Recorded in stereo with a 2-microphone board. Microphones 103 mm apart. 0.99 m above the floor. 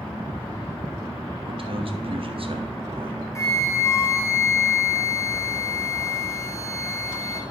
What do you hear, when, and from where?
1.5 s a man speaking: 60° right (ahead or behind), 1.0 m
3.4 s a flute: 30° left (ahead or behind), 1.2 m